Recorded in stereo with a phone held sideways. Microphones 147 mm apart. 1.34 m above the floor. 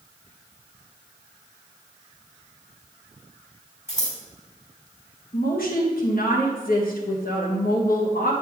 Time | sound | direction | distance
3.9 | scissors | 55° left (ahead or behind) | 3 m
5.3 | a woman speaking | 80° left | 1.9 m